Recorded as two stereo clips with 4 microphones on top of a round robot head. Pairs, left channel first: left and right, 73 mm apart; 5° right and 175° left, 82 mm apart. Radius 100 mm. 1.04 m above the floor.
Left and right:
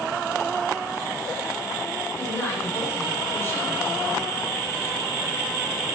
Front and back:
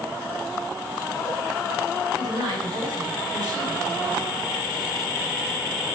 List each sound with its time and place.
2.2 s a woman speaking: 135° left, 8.5 m; by 4.4 s 145° left, 8.5 m